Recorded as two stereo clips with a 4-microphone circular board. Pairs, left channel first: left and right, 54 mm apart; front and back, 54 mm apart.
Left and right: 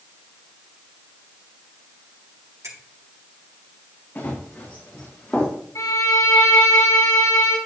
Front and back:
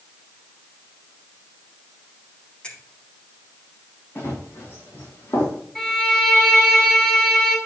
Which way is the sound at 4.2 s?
40° left.